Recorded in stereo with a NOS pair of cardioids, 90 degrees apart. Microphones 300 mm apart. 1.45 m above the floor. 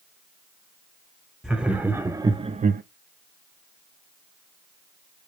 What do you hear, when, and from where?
1.4 s laughter: straight ahead, 1.3 m; by 2.8 s 35° right, 0.6 m